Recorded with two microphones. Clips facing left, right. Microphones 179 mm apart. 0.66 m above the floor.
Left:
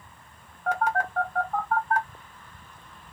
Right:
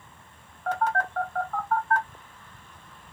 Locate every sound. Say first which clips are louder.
0.7 s a phone buzzing: left 1 dB; 10° left (ahead or behind), 1.5 m